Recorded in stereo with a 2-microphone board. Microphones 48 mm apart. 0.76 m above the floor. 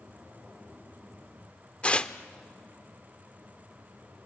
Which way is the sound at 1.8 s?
25° left (ahead or behind).